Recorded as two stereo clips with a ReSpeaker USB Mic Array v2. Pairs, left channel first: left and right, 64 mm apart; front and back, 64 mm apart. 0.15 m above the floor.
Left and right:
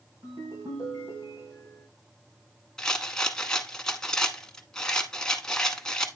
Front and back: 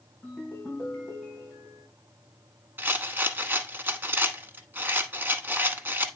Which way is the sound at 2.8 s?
165° left.